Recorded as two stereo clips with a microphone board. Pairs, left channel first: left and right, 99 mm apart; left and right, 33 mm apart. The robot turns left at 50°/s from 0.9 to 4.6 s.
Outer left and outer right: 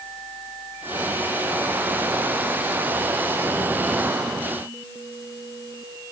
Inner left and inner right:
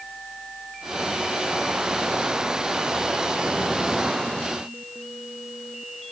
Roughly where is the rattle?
I don't hear a rattle.